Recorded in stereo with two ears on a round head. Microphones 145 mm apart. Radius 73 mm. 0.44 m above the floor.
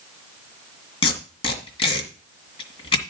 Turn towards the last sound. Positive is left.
turn(degrees=30)  # may be behind; listen again after turning